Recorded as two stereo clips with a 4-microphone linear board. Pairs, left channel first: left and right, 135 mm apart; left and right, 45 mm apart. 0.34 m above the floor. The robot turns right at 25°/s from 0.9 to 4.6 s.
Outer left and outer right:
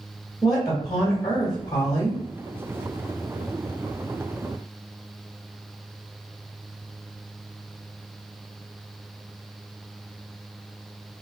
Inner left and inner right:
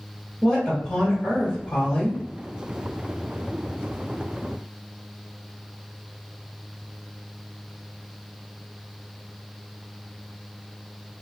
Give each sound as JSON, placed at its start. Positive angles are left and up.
{"t": 0.4, "sound": "a woman speaking", "azimuth_deg": 35, "distance_m": 1.2}